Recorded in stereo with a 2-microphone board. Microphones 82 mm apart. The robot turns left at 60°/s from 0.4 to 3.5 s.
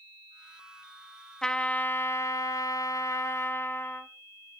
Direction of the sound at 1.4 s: 170° left.